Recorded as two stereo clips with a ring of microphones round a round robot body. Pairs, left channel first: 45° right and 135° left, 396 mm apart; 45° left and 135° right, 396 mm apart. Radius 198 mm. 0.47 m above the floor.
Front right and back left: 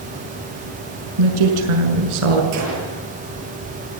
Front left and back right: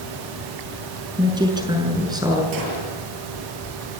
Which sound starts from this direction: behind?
A gunshot, at 2.5 s.